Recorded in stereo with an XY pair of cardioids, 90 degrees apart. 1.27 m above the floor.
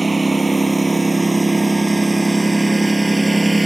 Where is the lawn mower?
20° right; by 3.7 s 15° right.